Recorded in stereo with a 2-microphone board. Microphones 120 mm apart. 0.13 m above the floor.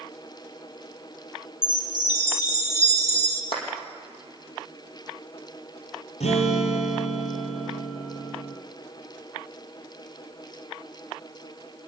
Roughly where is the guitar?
Left.